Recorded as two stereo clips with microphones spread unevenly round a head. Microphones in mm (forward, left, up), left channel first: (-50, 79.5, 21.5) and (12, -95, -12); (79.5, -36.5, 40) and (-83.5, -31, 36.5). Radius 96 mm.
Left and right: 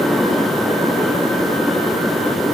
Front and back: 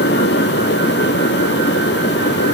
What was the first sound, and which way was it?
Only background noise.